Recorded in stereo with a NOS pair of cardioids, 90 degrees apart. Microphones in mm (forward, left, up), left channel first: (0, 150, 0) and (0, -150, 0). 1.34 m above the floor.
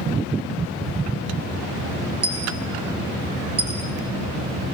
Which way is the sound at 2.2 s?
50° right.